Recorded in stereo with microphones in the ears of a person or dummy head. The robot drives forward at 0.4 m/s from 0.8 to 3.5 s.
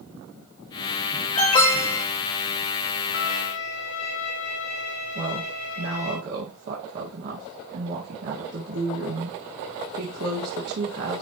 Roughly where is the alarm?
Left.